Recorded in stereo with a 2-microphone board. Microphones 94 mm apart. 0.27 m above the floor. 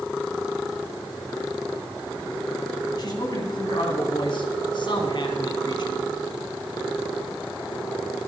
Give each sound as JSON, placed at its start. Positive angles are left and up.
{"t": 3.0, "sound": "a man speaking", "side_deg": 50, "distance_m": 2.5}